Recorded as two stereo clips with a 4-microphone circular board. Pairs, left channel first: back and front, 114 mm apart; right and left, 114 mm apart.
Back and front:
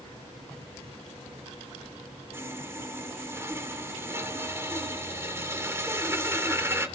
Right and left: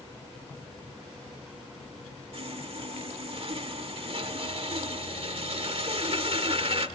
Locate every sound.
2.3 s sawing: 65° left, 1.9 m